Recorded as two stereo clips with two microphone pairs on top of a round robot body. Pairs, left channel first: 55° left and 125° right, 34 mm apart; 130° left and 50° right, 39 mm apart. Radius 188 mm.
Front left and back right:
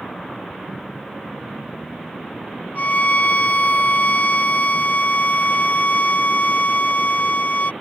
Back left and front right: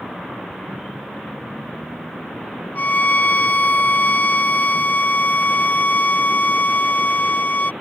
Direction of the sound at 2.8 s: 85° left.